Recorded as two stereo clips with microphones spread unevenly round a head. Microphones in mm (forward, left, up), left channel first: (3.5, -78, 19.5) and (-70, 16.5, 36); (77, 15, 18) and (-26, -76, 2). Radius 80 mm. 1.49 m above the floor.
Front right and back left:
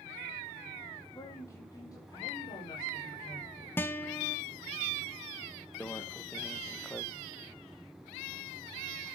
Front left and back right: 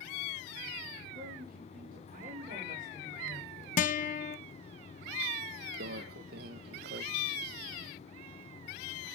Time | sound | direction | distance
1.1 | a woman speaking | 120° right | 4 m
3.8 | a guitar | 30° left | 0.6 m
5.8 | a microwave | 130° right | 1.1 m